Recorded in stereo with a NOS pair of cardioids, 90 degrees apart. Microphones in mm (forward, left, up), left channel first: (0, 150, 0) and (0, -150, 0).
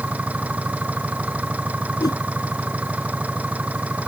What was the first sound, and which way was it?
An engine running, 5° right.